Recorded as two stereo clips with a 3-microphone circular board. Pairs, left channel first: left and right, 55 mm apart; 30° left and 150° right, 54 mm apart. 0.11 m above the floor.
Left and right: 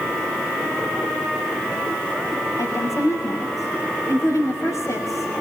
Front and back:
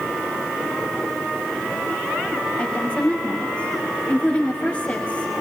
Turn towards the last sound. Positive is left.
turn(degrees=100)